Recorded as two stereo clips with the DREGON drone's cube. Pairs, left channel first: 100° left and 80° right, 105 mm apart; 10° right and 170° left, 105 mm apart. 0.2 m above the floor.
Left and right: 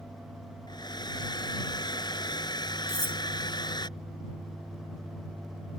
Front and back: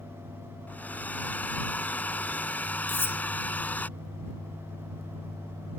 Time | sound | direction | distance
0.7 | a hair dryer | 60° left | ?
2.9 | cutlery clinking | 50° right | ?